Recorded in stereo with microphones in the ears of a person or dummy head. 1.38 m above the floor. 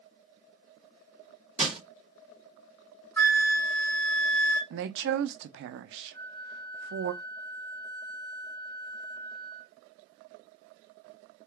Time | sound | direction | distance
1.6 | crushing | 5° right (ahead or behind) | 2 m
3.2 | a flute | 5° left (ahead or behind) | 1.9 m
4.7 | a woman speaking | 60° right (ahead or behind) | 0.5 m
6.1 | a flute | 20° left (ahead or behind) | 1.8 m